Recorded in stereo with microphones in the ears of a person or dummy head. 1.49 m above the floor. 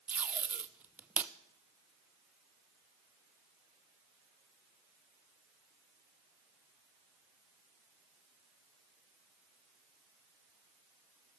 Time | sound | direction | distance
0.1 | tape being pulled | 5° right (ahead or behind) | 0.7 m